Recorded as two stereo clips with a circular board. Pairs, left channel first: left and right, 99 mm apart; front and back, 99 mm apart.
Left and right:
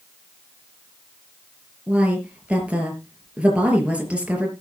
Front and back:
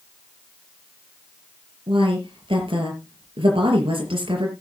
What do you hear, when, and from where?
1.9 s a woman speaking: 165° right, 5 m